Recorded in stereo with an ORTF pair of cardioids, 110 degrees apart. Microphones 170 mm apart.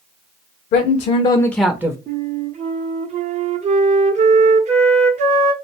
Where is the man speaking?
65° left, 0.6 m; by 2.0 s 15° right, 0.6 m.